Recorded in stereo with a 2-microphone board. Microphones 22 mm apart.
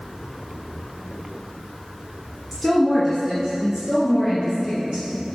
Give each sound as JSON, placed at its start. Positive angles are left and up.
{"t": 2.5, "sound": "a woman speaking", "side_deg": 5, "distance_m": 1.2}